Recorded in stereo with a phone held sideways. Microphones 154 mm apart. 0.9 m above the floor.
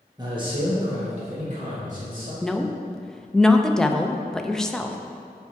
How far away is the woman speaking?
About 0.5 m.